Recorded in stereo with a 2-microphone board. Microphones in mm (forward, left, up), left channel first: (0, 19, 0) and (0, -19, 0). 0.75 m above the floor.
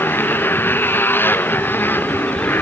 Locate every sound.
0.0 s a motorcycle: 65° left (ahead or behind)